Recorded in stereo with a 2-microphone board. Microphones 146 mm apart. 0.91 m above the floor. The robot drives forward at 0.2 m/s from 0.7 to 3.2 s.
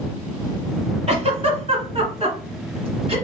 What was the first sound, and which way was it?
A giggle, 45° right (ahead or behind).